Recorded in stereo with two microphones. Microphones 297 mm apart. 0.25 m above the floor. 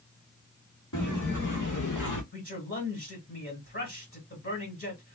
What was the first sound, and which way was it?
Footsteps, 80° left.